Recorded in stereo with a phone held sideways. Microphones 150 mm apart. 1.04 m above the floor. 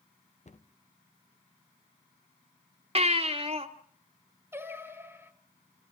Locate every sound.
0.5 s a cupboard door: 50° left (ahead or behind), 1.0 m
3.0 s a baby crying: 40° right (ahead or behind), 1.5 m
4.5 s singing: 15° right (ahead or behind), 1.4 m